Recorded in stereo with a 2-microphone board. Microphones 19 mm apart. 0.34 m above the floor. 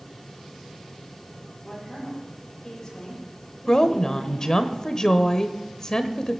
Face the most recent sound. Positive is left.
turn(degrees=35)  # may be behind; listen again after turning